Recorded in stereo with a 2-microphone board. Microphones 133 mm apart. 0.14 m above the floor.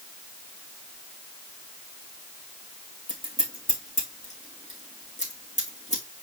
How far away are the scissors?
About 3 m.